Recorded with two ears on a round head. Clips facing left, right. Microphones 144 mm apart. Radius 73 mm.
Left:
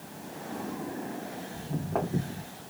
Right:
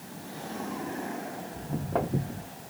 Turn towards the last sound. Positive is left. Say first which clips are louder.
# right 1 dB
turn(degrees=-20)  # may be behind; listen again after turning